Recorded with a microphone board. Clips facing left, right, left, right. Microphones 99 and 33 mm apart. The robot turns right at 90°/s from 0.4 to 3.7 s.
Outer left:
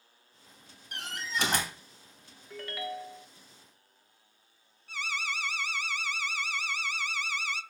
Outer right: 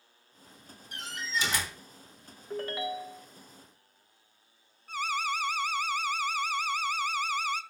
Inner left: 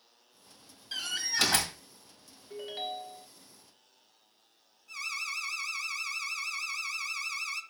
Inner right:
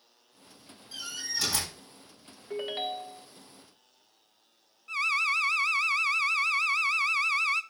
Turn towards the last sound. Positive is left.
turn(degrees=-45)  # may be behind; listen again after turning